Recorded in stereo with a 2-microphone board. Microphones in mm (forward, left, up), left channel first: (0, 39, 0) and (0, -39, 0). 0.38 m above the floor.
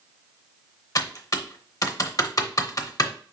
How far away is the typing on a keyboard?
About 0.7 m.